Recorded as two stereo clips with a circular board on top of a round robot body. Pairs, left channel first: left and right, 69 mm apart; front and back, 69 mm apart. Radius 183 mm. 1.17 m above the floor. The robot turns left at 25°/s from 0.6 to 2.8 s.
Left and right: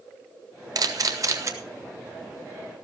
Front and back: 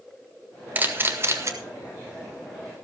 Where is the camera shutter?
120° right, 1.8 m; by 1.5 s 135° right, 1.8 m.